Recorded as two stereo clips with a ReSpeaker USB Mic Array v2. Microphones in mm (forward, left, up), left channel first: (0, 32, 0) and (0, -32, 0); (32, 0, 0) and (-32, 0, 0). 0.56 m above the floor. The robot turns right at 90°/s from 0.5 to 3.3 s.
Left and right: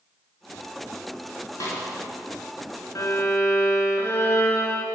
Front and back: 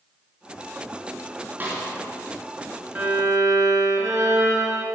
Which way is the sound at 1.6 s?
120° left.